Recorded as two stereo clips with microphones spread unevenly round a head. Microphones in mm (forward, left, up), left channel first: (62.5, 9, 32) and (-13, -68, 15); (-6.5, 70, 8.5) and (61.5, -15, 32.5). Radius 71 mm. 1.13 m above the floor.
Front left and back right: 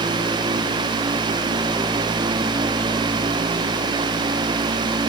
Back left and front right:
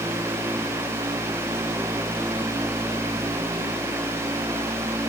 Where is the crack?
I don't hear a crack.